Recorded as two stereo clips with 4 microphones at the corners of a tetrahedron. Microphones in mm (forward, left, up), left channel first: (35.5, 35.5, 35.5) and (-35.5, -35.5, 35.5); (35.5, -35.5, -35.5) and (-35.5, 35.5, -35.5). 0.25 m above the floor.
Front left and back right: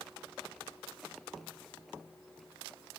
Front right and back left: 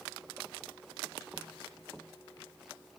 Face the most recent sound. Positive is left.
No sound to turn to.